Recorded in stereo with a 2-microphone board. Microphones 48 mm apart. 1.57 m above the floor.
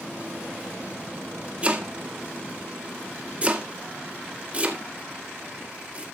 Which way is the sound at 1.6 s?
25° right (ahead or behind).